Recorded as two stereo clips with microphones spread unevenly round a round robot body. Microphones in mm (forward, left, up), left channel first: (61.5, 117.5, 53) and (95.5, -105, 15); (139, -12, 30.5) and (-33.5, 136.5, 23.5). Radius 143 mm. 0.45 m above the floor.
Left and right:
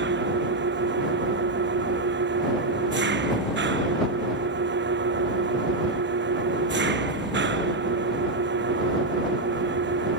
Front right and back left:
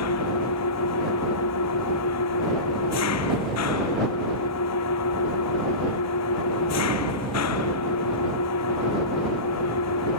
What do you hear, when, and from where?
0.0 s an engine running: 40° right